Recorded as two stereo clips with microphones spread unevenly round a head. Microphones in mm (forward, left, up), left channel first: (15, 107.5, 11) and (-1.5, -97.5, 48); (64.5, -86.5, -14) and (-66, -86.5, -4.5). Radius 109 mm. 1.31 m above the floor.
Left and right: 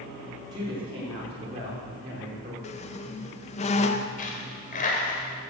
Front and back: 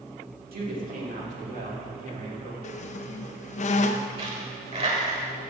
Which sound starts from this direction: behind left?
A dropped coin, at 4.2 s.